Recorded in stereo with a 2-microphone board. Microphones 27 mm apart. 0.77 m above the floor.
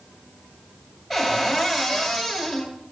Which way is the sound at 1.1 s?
Centre (ahead or behind).